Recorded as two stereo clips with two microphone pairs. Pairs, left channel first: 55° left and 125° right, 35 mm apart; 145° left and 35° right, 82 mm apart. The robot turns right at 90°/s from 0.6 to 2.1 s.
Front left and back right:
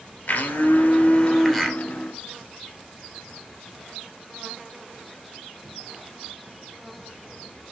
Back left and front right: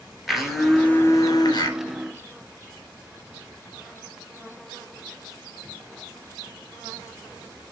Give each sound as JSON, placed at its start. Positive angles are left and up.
{"t": 0.3, "sound": "a blender", "azimuth_deg": 50, "distance_m": 2.0}